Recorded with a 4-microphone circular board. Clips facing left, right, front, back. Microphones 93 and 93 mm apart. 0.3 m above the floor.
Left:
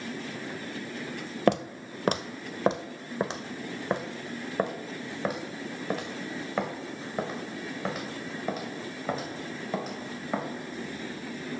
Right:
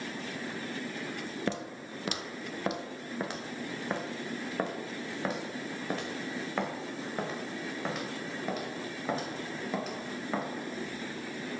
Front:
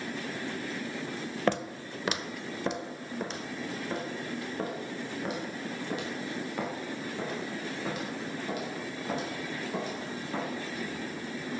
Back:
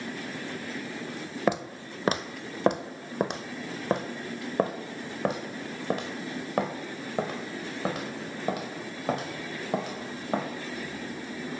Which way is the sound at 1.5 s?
100° left.